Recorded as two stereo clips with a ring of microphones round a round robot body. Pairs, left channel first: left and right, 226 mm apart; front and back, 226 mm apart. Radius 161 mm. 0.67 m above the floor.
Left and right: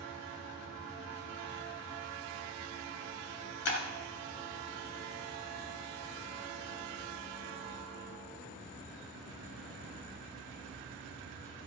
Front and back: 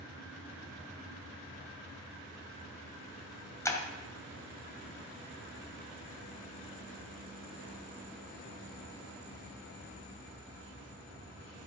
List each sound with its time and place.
3.6 s breaking glass: 75° left, 2 m